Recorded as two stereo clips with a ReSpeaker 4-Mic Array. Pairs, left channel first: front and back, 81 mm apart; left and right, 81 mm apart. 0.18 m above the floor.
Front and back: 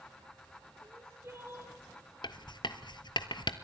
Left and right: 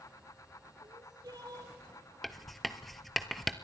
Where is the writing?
Straight ahead, 1.2 m.